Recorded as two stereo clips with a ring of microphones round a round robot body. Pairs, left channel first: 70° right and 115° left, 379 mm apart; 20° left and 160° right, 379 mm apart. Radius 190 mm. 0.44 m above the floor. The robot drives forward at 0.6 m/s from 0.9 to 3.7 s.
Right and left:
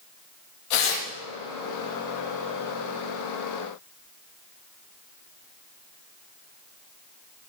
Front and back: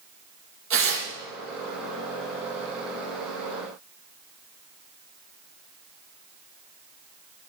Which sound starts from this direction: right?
Tearing paper, at 0.7 s.